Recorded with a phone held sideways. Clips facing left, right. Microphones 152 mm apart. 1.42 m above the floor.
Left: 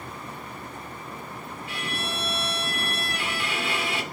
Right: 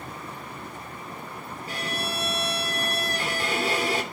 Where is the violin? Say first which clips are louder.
Right 2 dB; 40° right (ahead or behind), 3 m.